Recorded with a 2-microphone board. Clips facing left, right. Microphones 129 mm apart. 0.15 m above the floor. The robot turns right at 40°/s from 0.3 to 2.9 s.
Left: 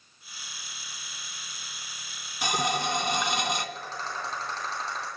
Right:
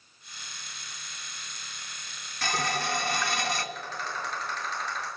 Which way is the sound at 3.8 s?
35° left (ahead or behind).